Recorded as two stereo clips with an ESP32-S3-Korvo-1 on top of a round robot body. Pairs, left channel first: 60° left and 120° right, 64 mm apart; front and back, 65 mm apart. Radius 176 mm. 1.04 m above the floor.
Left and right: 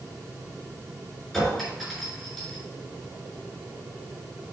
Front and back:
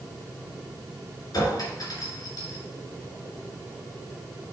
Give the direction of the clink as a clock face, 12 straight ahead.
1 o'clock.